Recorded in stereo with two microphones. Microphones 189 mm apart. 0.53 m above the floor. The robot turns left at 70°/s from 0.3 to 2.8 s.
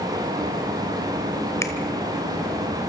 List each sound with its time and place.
1.6 s a finger snap: 15° left (ahead or behind), 2 m; by 1.7 s 20° left (ahead or behind), 2 m